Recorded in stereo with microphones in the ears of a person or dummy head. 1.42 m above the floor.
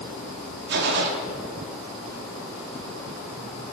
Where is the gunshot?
65° right (ahead or behind), 1.8 m.